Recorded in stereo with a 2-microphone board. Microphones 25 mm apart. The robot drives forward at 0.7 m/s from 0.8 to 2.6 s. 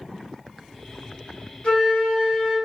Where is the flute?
60° left (ahead or behind), 1.9 m; by 2.5 s 45° left (ahead or behind), 2 m.